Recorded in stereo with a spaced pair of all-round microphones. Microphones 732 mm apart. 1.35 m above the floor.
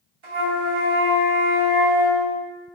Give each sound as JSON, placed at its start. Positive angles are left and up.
{"t": 0.2, "sound": "a flute", "side_deg": -40, "distance_m": 1.0}